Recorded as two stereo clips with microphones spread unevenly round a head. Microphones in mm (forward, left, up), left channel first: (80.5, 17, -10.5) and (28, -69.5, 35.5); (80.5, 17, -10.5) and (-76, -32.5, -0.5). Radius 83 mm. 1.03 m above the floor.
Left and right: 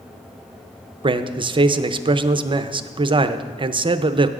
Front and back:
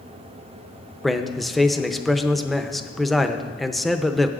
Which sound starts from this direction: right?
A man speaking, at 1.0 s.